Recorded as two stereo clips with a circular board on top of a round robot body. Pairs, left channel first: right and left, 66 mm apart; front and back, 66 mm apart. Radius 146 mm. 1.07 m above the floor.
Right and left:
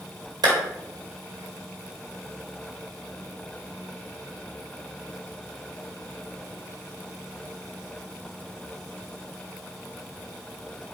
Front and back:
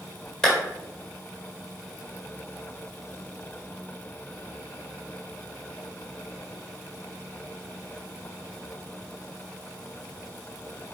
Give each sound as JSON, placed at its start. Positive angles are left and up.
{"t": 0.4, "sound": "a clap", "azimuth_deg": 80, "distance_m": 1.8}